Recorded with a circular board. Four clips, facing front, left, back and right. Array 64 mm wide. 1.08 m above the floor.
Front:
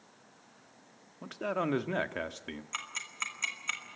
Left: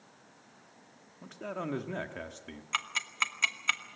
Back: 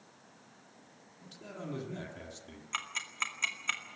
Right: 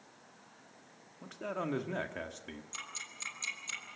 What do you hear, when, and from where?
1.2 s a man speaking: 5° right, 1.7 m
2.7 s ticking: 95° left, 2 m